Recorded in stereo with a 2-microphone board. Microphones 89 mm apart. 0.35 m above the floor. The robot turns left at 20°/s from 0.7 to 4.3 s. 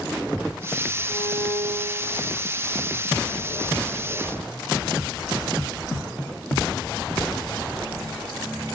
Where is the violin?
15° right (ahead or behind), 7 m; by 2.3 s 10° left (ahead or behind), 7 m.